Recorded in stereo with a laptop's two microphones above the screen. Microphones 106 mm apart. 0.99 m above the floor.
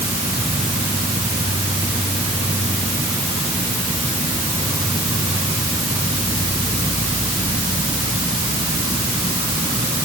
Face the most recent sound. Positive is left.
turn(degrees=-45)  # may be behind; listen again after turning